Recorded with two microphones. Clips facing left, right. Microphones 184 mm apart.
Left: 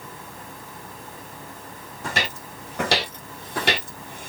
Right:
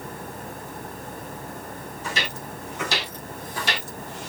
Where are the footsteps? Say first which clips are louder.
Left 3 dB; 65° left (ahead or behind), 2.5 m; by 4.3 s 55° left (ahead or behind), 1.3 m.